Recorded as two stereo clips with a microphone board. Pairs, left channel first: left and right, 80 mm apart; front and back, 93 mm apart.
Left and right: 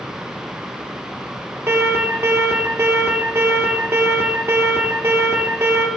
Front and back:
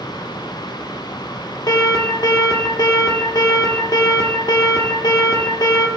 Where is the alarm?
35° right, 2 m.